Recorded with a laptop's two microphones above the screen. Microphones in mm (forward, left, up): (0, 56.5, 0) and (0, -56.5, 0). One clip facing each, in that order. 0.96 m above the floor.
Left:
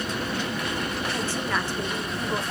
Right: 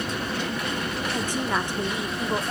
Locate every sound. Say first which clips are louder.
1.1 s a woman speaking: right 3 dB; 15° right (ahead or behind), 0.9 m